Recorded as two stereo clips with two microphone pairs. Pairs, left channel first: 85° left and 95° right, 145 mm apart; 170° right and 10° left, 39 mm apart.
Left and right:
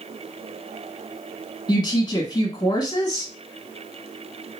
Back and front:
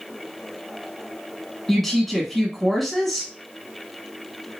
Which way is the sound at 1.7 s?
105° left.